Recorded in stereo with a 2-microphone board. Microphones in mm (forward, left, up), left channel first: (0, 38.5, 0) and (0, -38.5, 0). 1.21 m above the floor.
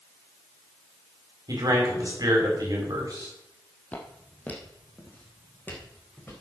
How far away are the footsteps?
About 2.5 m.